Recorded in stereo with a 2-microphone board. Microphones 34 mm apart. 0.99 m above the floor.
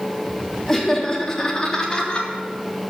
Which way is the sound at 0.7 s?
5° left (ahead or behind).